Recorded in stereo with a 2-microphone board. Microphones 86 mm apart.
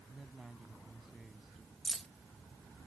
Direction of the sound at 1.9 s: 5° left (ahead or behind).